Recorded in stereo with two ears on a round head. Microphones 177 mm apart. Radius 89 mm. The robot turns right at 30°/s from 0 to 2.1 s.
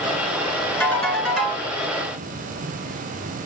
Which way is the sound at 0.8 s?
15° left (ahead or behind).